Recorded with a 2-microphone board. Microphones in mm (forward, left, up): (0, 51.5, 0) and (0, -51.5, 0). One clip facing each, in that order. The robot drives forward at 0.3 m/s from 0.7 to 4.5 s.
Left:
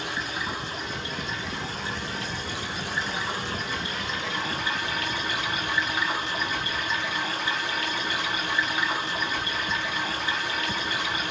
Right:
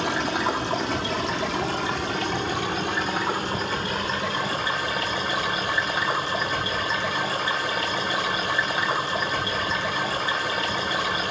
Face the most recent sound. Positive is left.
turn(degrees=-35)  # may be behind; listen again after turning